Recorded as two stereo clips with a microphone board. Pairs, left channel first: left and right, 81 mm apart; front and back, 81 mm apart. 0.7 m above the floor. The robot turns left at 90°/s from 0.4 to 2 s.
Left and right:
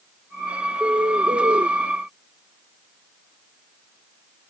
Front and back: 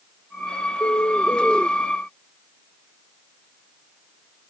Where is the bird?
30° right; by 1.7 s 110° right.